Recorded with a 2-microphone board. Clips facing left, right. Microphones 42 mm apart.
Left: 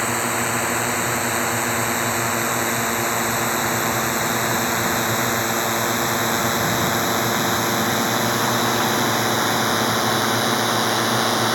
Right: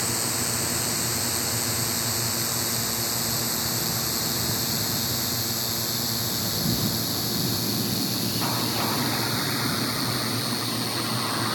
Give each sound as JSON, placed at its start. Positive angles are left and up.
{"t": 0.0, "sound": "a drone", "side_deg": 35}